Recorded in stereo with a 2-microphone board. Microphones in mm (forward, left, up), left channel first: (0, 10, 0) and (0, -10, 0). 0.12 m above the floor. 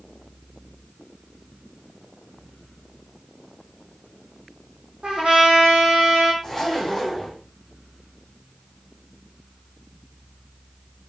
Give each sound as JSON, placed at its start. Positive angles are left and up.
{"t": 5.0, "sound": "a trumpet", "side_deg": -75, "distance_m": 1.1}
{"t": 6.4, "sound": "a zipper", "side_deg": 10, "distance_m": 1.5}